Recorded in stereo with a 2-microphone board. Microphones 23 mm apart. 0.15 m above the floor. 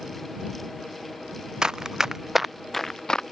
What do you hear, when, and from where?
1.6 s running footsteps: 35° right (ahead or behind); by 3.2 s 35° left (ahead or behind)